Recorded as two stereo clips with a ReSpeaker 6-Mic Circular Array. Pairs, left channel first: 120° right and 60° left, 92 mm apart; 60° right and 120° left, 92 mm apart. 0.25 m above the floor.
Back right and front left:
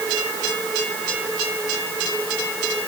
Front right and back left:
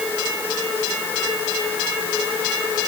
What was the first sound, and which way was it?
Only background noise.